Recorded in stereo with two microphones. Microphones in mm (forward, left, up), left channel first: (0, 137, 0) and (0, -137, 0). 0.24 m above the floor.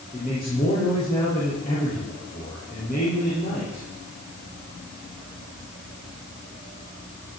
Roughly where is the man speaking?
Left.